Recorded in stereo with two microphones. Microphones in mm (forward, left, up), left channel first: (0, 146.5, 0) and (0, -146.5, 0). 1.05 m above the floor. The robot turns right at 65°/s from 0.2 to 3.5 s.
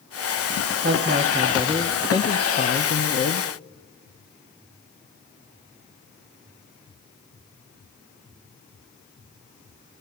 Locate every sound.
0.8 s a woman speaking: 70° right, 0.8 m; by 3.5 s 105° left, 0.8 m